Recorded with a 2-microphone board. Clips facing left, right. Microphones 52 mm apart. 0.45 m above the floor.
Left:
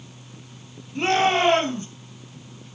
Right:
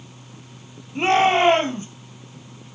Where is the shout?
20° right (ahead or behind), 3.5 m.